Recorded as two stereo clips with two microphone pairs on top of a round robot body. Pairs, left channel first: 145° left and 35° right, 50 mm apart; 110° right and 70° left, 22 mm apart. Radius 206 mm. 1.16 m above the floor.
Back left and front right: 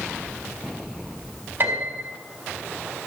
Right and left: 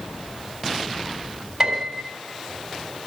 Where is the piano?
15° left, 3.5 m.